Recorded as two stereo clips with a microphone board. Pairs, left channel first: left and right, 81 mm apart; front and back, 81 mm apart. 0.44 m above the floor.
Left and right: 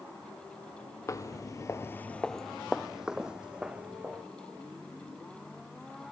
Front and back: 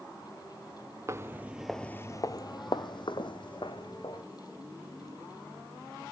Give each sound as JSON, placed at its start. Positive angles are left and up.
{"t": 1.1, "sound": "footsteps", "azimuth_deg": 130, "distance_m": 0.7}